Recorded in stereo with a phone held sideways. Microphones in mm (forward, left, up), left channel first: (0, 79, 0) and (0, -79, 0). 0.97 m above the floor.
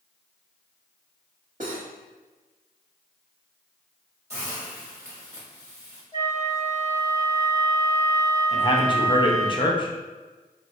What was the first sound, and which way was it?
Cutlery clinking, 65° right (ahead or behind).